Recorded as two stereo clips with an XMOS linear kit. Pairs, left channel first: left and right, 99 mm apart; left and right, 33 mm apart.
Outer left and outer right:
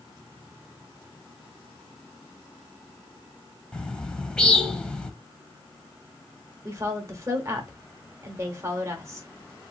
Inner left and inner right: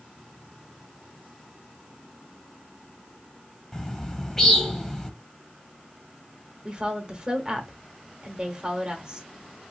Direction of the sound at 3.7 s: 10° left (ahead or behind).